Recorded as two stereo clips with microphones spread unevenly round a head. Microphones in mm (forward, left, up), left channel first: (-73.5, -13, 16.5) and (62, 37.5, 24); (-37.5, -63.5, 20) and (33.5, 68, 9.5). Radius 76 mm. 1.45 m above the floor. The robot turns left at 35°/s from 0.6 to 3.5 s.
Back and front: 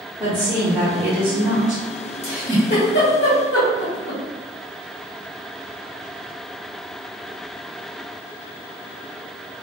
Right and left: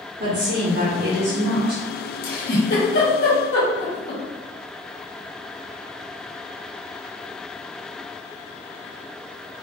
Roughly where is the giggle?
Behind right.